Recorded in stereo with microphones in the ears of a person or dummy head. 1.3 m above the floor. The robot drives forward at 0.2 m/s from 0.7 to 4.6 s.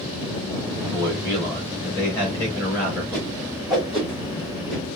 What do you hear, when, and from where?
0.8 s a man speaking: 20° left (ahead or behind), 3 m; by 3.0 s 15° left (ahead or behind), 3.5 m
3.1 s a whoosh: centre (ahead or behind), 2 m